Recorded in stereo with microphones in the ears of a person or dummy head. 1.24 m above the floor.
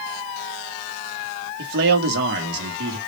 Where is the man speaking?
65° right (ahead or behind), 1.5 m.